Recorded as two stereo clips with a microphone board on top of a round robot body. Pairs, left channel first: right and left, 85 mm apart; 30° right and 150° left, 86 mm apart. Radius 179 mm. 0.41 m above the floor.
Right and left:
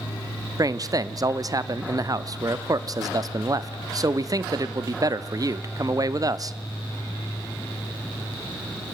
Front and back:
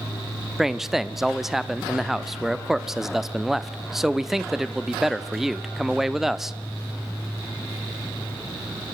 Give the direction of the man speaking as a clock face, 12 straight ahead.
10 o'clock.